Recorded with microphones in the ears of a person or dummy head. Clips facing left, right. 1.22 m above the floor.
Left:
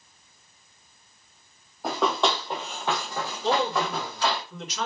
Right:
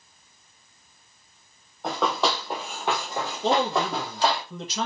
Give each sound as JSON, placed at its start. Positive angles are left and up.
{"t": 1.8, "sound": "running footsteps", "side_deg": 5, "distance_m": 1.9}
{"t": 3.4, "sound": "a man speaking", "side_deg": -35, "distance_m": 1.2}